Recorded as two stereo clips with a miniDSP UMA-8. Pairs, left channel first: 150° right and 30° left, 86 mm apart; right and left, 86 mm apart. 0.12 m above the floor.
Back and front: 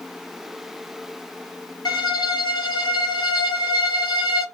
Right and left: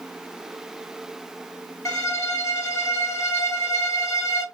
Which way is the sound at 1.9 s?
130° right.